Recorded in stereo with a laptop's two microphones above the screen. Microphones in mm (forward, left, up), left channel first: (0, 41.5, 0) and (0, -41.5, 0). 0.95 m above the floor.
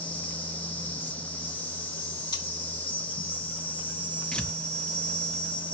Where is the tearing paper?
10° left (ahead or behind), 0.6 m.